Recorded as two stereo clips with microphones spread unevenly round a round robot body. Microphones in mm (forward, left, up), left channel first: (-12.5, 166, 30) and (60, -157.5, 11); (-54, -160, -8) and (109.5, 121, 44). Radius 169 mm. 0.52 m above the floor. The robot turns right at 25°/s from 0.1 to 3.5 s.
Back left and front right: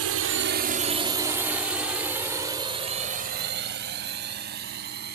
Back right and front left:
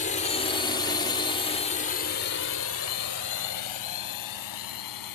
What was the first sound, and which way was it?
A drone, 75° right.